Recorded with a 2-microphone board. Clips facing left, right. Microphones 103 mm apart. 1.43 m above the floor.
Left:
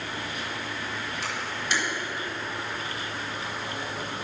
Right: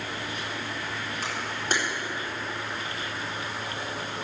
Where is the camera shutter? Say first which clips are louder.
Right 1 dB; 40° right (ahead or behind), 4.5 m.